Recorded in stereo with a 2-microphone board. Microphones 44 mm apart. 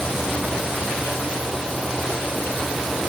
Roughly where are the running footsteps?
No running footsteps in this recording.